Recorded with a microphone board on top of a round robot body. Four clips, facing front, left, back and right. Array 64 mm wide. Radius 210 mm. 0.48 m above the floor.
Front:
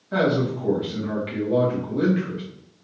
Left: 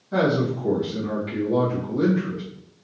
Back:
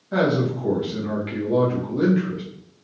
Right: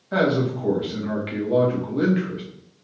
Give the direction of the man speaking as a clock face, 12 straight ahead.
3 o'clock.